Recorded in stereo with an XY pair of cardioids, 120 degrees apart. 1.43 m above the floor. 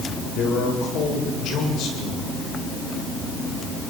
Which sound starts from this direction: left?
A man speaking, at 0.3 s.